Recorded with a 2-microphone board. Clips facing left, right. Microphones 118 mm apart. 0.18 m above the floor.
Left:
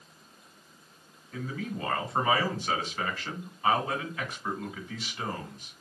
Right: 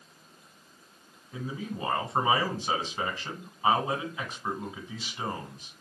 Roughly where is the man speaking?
Centre.